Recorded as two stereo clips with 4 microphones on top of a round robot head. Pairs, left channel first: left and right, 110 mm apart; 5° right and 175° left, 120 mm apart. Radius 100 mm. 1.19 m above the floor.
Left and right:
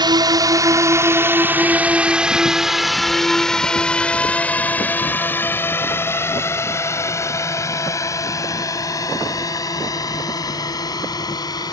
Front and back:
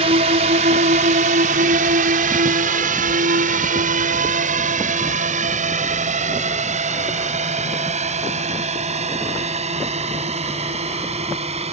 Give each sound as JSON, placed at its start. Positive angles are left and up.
{"t": 0.0, "sound": "a drone", "azimuth_deg": -140}